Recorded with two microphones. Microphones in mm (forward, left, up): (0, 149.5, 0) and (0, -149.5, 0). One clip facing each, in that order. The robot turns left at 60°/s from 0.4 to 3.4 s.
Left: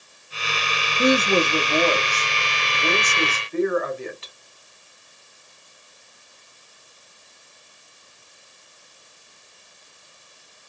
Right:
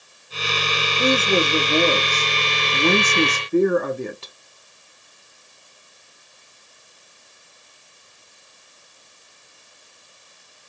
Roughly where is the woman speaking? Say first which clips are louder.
Left 1 dB; ahead.